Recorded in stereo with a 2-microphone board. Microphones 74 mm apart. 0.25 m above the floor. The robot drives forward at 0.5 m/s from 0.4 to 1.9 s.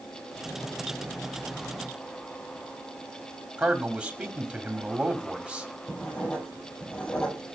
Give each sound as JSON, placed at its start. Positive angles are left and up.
{"t": 3.6, "sound": "a man speaking", "side_deg": -15, "distance_m": 1.8}
{"t": 5.9, "sound": "writing", "side_deg": 20, "distance_m": 9.0}